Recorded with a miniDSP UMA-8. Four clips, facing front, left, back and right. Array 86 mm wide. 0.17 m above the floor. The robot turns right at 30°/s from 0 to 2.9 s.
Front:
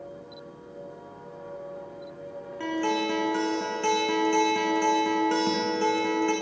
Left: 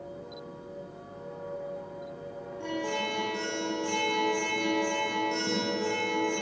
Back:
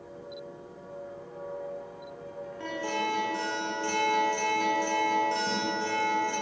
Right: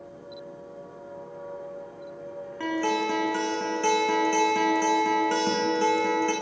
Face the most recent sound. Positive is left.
turn(degrees=-55)